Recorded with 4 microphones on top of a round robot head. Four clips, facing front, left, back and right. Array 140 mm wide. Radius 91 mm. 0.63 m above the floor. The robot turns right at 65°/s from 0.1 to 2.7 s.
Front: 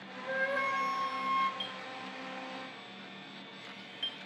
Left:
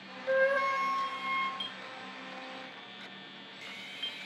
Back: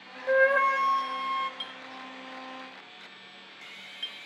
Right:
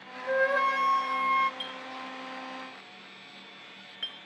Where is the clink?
175° right, 8 m; by 4.2 s 105° right, 8 m.